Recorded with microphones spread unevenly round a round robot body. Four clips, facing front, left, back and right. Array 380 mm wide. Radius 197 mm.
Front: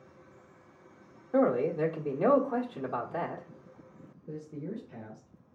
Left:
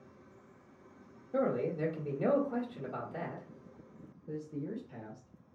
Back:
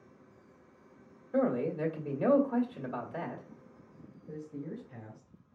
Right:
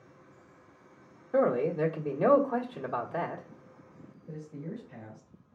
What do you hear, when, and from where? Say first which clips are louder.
1.3 s a man speaking: right 6 dB, front 4 dB; 30° right, 1.3 m
4.3 s a man speaking: left 2 dB, front 2 dB; 25° left, 2 m